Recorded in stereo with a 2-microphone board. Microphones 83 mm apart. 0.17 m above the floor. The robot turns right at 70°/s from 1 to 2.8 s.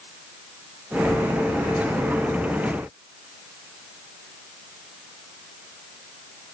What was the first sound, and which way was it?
Only background noise.